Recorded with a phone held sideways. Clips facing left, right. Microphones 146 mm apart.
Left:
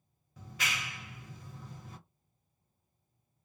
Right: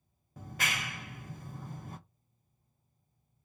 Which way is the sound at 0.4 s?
50° right (ahead or behind).